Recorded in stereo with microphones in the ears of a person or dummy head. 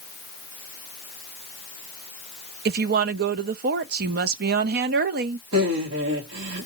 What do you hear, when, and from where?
2.6 s a woman speaking: 50° right (ahead or behind), 0.6 m
5.5 s laughter: 85° right, 2.5 m